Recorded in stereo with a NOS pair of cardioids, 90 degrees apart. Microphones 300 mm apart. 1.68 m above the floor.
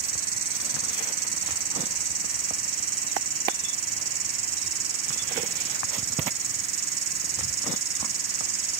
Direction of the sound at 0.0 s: 65° right.